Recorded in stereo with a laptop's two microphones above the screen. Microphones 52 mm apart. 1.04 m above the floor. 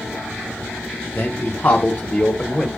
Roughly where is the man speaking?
Left.